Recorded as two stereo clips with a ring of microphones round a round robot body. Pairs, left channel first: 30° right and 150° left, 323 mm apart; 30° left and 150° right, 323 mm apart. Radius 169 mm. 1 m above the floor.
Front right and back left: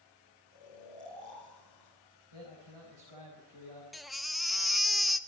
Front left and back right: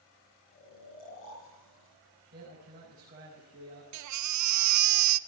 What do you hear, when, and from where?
0.5 s snoring: 80° left, 7.5 m
2.3 s a man speaking: 145° left, 6 m
3.9 s a baby crying: 120° right, 0.6 m